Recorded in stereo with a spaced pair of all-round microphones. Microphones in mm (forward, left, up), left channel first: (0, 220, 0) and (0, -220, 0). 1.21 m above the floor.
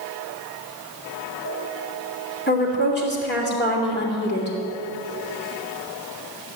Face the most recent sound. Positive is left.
turn(degrees=25)  # may be behind; listen again after turning